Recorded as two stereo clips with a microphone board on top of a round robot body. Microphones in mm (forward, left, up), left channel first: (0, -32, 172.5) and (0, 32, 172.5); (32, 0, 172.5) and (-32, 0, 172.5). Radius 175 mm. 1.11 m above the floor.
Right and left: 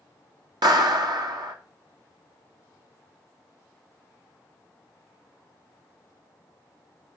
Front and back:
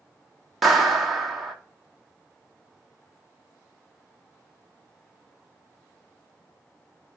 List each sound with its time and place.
0.6 s a clap: 90° left, 2 m